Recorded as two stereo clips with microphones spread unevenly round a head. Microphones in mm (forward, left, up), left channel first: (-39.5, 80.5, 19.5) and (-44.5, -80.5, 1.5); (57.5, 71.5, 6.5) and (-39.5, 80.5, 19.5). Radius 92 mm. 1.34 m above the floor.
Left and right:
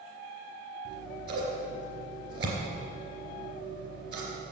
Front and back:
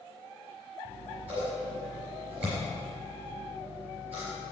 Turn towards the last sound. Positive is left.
turn(degrees=-105)